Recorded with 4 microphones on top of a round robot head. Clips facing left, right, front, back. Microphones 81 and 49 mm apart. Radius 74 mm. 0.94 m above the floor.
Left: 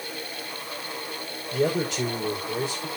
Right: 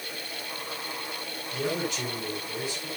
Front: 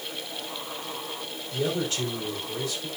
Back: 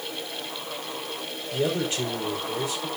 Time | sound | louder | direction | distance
1.5 | a man speaking | left 6 dB, back 2 dB | 110° left | 4 m